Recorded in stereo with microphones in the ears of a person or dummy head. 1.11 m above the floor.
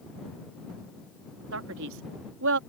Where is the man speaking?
75° right (ahead or behind).